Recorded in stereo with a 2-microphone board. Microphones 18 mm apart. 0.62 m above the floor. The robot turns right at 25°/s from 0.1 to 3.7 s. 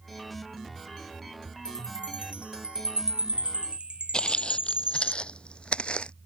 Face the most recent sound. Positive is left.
turn(degrees=70)  # may be behind; listen again after turning